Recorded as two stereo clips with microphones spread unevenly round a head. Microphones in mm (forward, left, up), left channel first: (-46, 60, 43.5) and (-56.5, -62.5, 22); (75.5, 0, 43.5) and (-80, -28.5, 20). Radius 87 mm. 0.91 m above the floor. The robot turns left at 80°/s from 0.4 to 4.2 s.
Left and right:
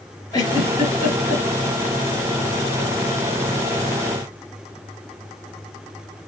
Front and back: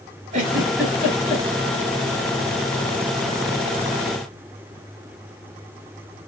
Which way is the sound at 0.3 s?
135° left.